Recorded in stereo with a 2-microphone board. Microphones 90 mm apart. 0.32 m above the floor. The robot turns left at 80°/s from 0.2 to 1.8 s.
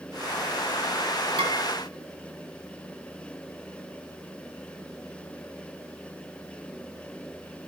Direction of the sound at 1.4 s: 75° right (ahead or behind).